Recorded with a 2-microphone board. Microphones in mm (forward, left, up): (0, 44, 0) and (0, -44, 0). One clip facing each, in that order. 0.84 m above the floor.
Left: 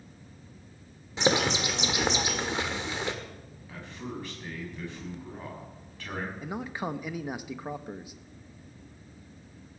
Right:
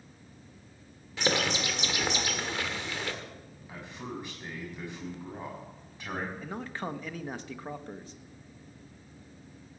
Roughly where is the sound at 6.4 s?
Centre.